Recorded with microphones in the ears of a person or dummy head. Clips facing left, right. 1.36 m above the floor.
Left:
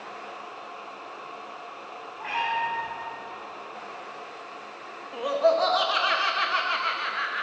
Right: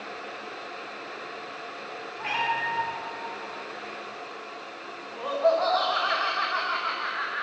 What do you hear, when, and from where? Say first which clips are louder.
2.2 s a cat meowing: left 1 dB; 45° right (ahead or behind), 1.9 m
5.1 s laughter: left 1 dB; 35° left (ahead or behind), 1.1 m